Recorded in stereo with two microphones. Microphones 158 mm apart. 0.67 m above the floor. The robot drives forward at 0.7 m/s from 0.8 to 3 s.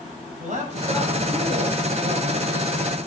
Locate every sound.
0.4 s a man speaking: 50° right (ahead or behind), 4 m; by 2.8 s 65° right (ahead or behind), 3.5 m